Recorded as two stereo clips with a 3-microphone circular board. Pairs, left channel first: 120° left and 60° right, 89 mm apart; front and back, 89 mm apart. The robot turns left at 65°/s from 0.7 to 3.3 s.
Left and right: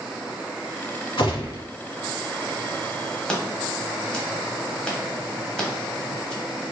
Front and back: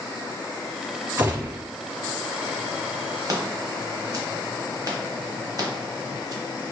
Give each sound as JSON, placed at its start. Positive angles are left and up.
{"t": 1.2, "sound": "a gunshot", "azimuth_deg": 125, "distance_m": 1.4}
{"t": 3.3, "sound": "scissors", "azimuth_deg": -160, "distance_m": 0.7}